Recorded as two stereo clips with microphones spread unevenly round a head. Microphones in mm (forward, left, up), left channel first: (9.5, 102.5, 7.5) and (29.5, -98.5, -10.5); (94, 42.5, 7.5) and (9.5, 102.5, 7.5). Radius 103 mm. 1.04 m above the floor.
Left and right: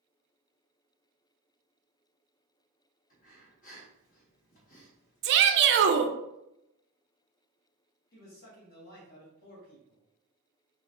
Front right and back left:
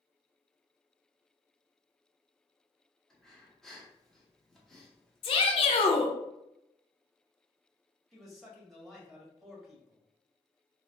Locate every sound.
3.1 s breathing: 50° left, 1.1 m
5.2 s a shout: 70° right, 0.5 m
8.1 s a man speaking: 55° left, 1.8 m